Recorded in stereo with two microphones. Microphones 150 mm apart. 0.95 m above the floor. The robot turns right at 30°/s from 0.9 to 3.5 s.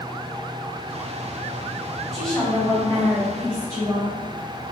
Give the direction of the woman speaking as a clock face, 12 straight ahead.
12 o'clock.